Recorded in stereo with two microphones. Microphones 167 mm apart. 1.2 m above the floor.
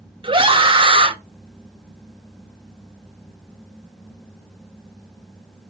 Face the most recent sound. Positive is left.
turn(degrees=-30)  # may be behind; listen again after turning